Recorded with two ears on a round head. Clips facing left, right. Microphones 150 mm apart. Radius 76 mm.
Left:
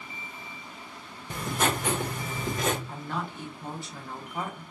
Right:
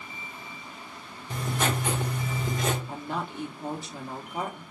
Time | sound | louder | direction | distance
1.3 | writing | left 1 dB | 45° left (ahead or behind) | 1.0 m
2.9 | a woman speaking | right 1 dB | 20° right (ahead or behind) | 0.8 m